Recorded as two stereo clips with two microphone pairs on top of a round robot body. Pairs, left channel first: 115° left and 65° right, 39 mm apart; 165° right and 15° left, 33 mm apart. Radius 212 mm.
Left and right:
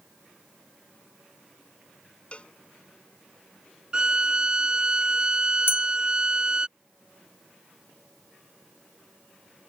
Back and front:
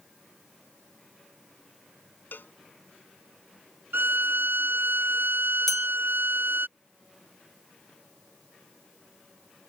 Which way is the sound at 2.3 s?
175° left.